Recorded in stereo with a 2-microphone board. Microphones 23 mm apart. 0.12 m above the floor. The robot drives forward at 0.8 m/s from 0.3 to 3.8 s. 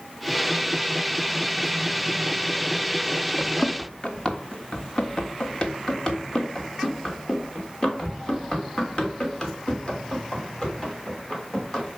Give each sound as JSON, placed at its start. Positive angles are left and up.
{"t": 3.4, "sound": "running footsteps", "side_deg": 55, "distance_m": 0.9}